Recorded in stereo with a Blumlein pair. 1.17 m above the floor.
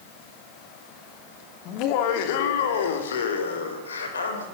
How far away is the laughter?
About 2.5 m.